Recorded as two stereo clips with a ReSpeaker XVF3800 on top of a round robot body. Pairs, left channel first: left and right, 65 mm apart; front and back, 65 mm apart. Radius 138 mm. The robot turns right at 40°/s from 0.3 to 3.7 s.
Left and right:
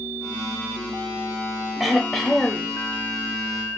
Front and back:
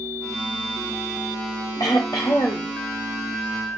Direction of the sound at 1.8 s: Straight ahead.